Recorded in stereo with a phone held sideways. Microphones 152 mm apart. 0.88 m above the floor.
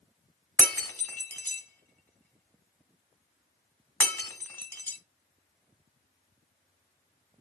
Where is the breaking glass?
10° left (ahead or behind), 1.7 m.